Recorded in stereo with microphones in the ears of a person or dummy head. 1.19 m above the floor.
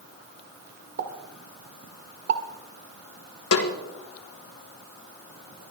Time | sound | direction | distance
1.0 | a pop | 60° right (ahead or behind) | 1.9 m
3.5 | a snare drum | 75° left (ahead or behind) | 2.5 m